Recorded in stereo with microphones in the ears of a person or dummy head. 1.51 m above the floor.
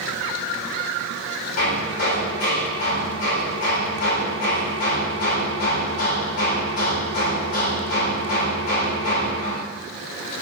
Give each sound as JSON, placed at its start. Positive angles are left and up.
{"t": 1.6, "sound": "hammering", "side_deg": 55, "distance_m": 2.5}